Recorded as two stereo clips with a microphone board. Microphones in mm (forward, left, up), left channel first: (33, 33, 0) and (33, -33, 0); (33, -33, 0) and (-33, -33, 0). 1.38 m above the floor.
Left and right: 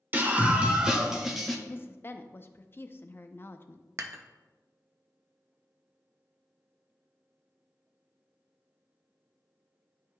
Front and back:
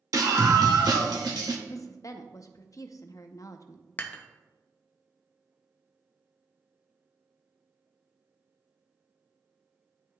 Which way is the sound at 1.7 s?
35° left.